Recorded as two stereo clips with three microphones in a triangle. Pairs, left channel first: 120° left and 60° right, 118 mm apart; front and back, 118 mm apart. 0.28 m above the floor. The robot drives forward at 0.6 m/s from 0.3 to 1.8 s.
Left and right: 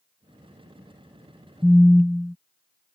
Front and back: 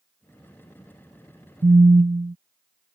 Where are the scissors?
No scissors in this recording.